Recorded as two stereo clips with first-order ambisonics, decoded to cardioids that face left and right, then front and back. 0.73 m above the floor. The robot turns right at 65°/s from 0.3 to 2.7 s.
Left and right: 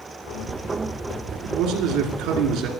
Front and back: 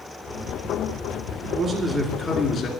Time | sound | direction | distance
1.4 | a man speaking | 125° right | 1.9 m